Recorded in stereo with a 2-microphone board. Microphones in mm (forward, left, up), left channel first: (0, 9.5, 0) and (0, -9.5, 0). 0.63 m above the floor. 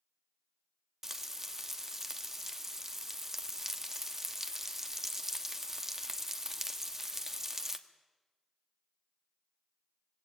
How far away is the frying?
About 1.1 m.